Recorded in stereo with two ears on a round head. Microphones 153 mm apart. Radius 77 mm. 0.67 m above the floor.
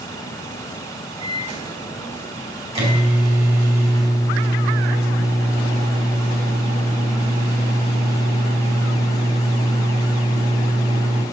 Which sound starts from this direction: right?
A microwave, at 1.2 s.